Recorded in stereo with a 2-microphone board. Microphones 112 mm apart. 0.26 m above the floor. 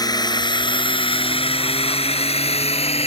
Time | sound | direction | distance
0.0 | a drone | 40° left (ahead or behind) | ?